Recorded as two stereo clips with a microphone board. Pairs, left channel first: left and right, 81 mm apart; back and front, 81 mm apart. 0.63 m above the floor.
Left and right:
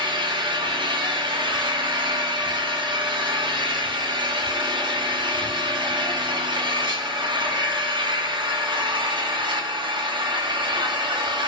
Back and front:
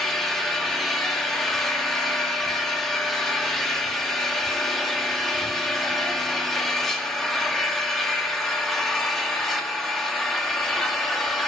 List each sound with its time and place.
0.0 s an engine running: 90° right, 1.6 m